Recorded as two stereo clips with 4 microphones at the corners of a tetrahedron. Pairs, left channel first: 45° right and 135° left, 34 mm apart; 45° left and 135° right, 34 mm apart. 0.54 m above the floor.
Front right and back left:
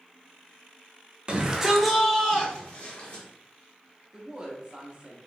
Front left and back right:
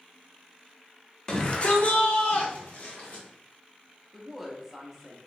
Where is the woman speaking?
145° left, 0.7 m.